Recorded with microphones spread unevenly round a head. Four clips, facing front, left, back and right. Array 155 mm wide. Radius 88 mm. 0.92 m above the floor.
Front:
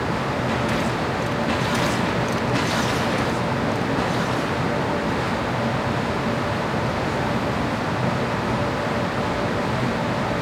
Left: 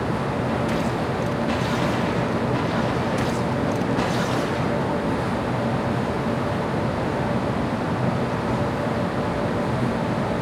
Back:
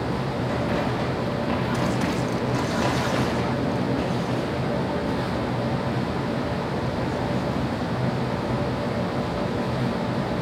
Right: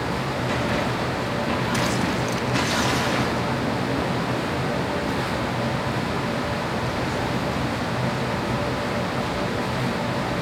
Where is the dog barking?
No dog barking in this recording.